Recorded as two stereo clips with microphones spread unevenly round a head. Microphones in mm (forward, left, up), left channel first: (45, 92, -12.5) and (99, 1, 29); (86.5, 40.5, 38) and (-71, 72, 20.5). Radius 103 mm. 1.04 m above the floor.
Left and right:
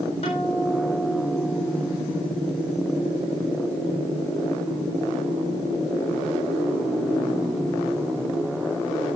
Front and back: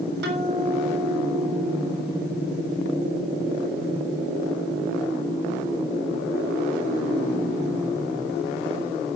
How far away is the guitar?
About 3.5 m.